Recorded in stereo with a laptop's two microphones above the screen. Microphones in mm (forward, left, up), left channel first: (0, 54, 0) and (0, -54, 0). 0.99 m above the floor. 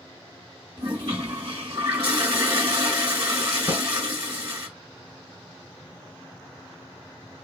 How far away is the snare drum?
About 2 m.